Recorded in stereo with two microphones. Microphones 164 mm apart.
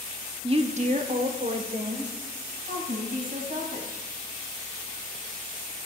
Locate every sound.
0.4 s a woman speaking: 35° right (ahead or behind), 0.8 m; by 4.0 s 60° right (ahead or behind), 3.5 m